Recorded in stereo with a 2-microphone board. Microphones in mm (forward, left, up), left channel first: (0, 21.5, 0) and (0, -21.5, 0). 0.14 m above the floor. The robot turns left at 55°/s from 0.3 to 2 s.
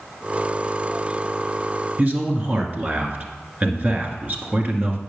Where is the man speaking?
40° right (ahead or behind), 1.5 m.